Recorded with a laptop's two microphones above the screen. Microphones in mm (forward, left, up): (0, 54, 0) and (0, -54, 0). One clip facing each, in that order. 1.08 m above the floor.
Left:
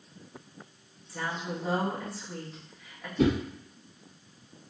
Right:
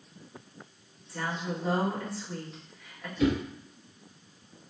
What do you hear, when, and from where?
1.1 s a woman speaking: centre (ahead or behind), 2.0 m
3.2 s a whoosh: 60° left (ahead or behind), 1.2 m